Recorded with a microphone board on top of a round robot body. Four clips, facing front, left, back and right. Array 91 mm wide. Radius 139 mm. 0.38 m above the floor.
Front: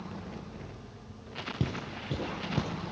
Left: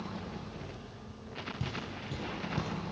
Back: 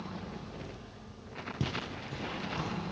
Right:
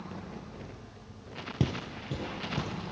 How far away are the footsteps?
About 0.6 m.